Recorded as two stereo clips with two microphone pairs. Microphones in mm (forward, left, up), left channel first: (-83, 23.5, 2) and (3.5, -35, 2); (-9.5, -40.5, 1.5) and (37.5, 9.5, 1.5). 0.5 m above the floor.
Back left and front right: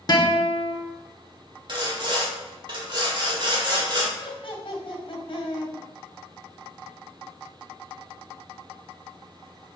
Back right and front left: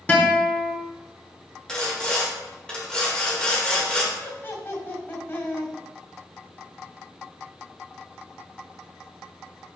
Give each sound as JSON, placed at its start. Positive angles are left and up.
{"t": 0.1, "sound": "a guitar", "azimuth_deg": 170, "distance_m": 1.2}
{"t": 1.7, "sound": "sawing", "azimuth_deg": -55, "distance_m": 1.7}
{"t": 4.1, "sound": "laughter", "azimuth_deg": 175, "distance_m": 2.5}